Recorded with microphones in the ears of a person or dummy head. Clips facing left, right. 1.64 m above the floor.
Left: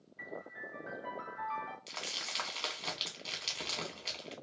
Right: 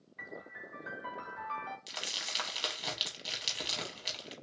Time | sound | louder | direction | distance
0.2 | a piano | left 2 dB | 80° right | 1.6 m
1.9 | crumpling | even | 10° right (ahead or behind) | 1.0 m